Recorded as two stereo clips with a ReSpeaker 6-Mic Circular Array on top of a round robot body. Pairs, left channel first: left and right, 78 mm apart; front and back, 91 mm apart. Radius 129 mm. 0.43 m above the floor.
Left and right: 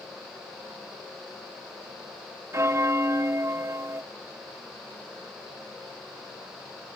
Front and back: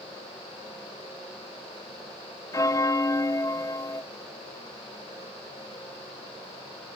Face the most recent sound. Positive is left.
turn(degrees=-45)